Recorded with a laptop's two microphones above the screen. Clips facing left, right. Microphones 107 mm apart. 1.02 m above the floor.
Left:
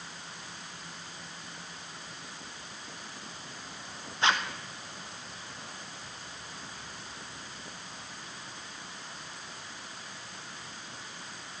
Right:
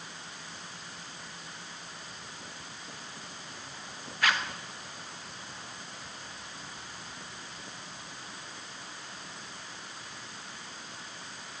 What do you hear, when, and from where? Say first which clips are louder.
4.2 s a zipper: left 2 dB; 25° left (ahead or behind), 1.2 m